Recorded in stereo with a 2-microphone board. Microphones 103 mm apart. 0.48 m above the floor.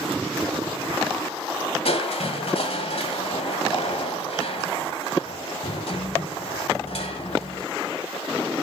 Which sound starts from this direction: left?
Crushing, at 1.9 s.